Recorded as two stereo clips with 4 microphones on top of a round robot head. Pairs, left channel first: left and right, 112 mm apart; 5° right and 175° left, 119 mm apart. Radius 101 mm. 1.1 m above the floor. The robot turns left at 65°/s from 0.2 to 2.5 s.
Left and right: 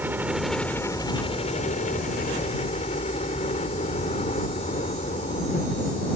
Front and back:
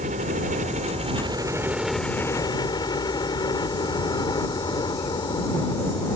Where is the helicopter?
165° right; by 6.2 s 45° left.